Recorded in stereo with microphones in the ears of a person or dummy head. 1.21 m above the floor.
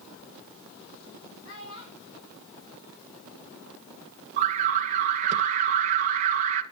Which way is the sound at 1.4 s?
70° left (ahead or behind).